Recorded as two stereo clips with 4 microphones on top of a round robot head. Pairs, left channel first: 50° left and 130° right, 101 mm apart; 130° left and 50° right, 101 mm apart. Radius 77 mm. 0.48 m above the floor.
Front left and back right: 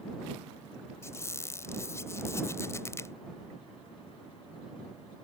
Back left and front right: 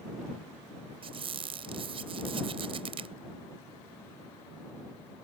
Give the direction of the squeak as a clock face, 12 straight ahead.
1 o'clock.